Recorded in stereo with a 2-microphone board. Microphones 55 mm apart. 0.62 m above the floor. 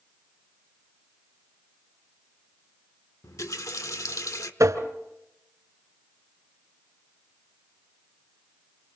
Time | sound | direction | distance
3.2 | a running tap | 70° left (ahead or behind) | 1.1 m
4.6 | tapping | 60° right (ahead or behind) | 1.8 m